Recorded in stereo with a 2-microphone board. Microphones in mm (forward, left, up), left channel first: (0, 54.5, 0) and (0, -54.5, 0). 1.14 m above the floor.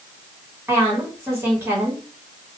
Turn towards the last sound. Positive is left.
turn(degrees=-25)  # may be behind; listen again after turning